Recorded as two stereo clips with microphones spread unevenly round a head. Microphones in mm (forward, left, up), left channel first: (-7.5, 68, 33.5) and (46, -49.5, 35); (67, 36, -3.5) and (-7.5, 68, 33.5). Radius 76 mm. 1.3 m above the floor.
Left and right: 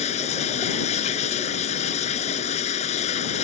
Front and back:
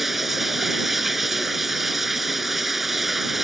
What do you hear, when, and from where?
0.0 s running water: 80° left